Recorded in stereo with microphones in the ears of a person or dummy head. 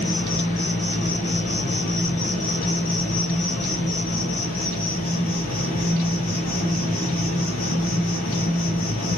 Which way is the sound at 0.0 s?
35° left (ahead or behind).